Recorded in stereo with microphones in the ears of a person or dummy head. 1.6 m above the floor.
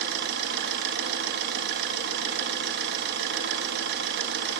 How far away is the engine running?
About 2.5 m.